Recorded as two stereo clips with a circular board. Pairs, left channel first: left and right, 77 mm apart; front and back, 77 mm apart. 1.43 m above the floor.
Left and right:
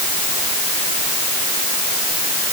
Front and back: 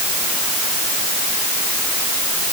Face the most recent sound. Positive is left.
No sound to turn to.